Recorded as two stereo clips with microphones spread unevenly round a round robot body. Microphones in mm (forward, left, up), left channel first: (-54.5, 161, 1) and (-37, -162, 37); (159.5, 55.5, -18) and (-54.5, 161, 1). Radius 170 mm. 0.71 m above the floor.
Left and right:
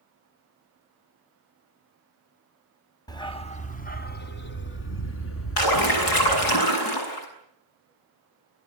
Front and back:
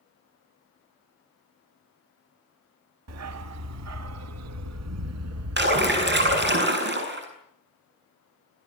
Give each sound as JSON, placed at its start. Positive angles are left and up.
{"t": 3.1, "sound": "a dog barking", "azimuth_deg": 175, "distance_m": 1.3}
{"t": 5.6, "sound": "a splash", "azimuth_deg": 110, "distance_m": 7.0}